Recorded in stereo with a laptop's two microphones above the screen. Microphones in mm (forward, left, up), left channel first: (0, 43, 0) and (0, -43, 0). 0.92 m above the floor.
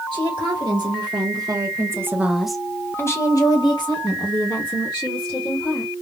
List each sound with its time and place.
0.1 s a woman speaking: 65° right (ahead or behind), 1.5 m; by 5.9 s 75° left (ahead or behind), 2 m